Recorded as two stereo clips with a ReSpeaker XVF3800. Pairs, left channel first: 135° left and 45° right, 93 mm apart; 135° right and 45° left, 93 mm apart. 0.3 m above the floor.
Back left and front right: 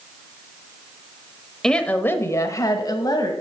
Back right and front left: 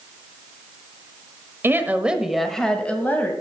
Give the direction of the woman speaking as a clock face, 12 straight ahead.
10 o'clock.